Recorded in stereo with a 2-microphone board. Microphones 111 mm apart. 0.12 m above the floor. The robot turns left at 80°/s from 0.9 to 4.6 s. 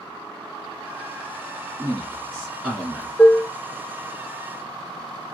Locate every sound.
1.8 s a man speaking: 30° right (ahead or behind), 1.7 m; by 3.1 s 10° left (ahead or behind), 1.7 m
3.2 s dishes clattering: 5° left (ahead or behind), 0.9 m; by 3.5 s 15° left (ahead or behind), 0.9 m